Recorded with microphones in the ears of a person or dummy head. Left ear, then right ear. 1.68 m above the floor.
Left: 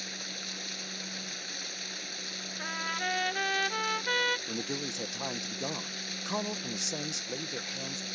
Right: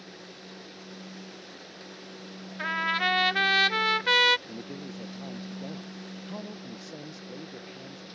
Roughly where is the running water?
Left.